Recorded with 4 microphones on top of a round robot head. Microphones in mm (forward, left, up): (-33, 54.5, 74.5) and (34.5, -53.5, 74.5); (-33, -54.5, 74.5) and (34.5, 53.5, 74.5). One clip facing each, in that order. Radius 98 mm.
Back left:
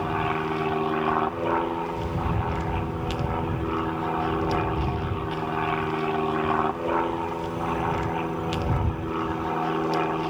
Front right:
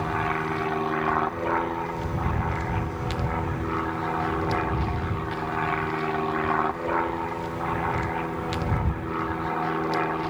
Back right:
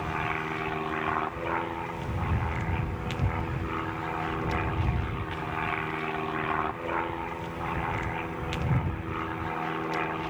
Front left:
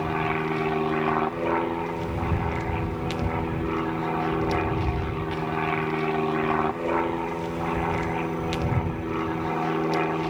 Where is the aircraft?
50° left.